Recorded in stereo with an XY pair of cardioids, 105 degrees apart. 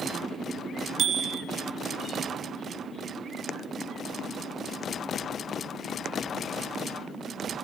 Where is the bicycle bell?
60° right, 3 m.